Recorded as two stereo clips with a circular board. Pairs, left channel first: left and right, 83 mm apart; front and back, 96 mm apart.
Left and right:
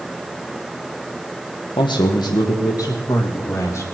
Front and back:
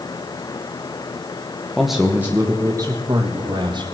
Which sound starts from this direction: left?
A man speaking, at 1.8 s.